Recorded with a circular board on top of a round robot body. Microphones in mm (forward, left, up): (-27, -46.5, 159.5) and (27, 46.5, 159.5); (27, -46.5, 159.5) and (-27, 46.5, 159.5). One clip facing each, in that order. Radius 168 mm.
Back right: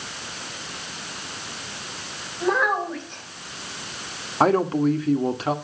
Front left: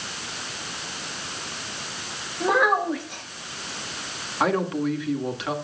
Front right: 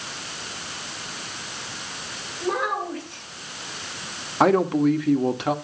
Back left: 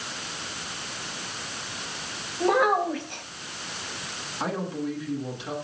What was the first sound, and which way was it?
A child speaking, 145° left.